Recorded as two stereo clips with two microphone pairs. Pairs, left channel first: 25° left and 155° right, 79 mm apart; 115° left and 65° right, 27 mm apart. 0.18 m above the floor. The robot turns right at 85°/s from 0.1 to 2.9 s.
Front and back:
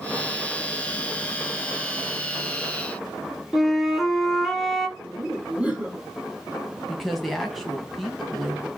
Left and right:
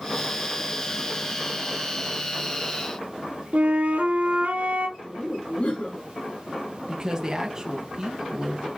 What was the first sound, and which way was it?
A flute, 60° right.